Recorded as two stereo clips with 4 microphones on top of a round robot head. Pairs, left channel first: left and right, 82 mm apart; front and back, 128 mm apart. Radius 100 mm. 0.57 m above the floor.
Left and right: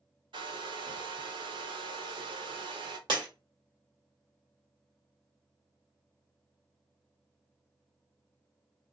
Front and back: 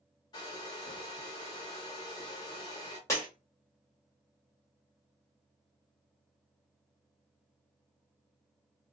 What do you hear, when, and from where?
0.3 s a hair dryer: 65° right, 0.6 m
3.1 s breaking glass: 70° right, 1.4 m